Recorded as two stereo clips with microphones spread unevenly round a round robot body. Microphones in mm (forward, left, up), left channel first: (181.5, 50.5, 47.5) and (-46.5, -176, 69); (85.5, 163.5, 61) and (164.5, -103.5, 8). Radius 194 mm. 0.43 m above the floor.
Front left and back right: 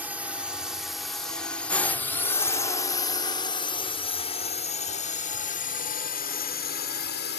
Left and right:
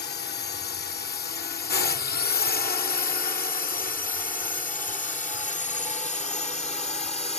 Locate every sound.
0.0 s a drone: 140° left; by 7.4 s 40° left